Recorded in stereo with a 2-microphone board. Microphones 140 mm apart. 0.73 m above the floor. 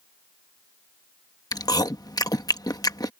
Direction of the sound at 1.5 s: 25° left (ahead or behind).